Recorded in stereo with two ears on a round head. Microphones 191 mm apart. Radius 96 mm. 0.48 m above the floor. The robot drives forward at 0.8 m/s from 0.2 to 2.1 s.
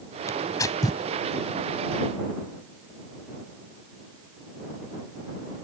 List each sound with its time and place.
0.3 s tearing paper: 15° left (ahead or behind); by 1.0 s 20° left (ahead or behind)